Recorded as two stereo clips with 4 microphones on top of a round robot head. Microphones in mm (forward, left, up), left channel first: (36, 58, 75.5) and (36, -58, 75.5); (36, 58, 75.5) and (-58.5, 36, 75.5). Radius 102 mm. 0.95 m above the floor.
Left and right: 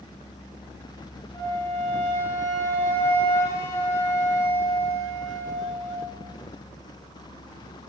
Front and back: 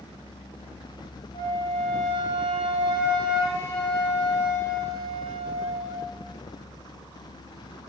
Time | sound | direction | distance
1.3 | a flute | 25° left | 1.7 m